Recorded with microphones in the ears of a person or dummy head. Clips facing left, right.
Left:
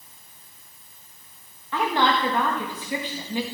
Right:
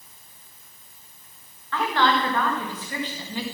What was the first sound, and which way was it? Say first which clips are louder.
A woman speaking: even; 15° left (ahead or behind).